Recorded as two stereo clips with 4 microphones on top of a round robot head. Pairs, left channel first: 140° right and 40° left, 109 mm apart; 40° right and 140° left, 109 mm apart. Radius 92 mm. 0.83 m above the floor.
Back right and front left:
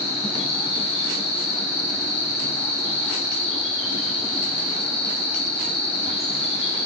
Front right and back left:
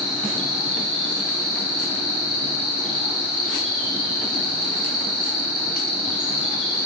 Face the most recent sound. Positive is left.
turn(degrees=-120)